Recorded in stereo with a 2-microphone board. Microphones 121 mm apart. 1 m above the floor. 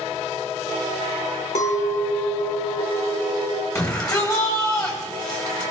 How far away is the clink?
About 2 m.